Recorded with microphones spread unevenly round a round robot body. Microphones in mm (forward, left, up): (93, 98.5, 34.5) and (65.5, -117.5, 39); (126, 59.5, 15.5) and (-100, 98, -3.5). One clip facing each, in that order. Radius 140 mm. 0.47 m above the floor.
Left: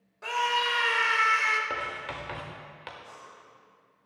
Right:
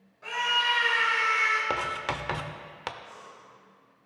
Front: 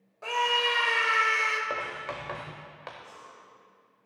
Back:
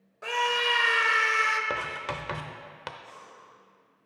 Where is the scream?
100° left, 1.6 m.